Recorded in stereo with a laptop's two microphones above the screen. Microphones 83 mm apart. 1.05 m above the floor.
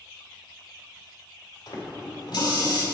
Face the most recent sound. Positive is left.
turn(degrees=60)  # may be behind; listen again after turning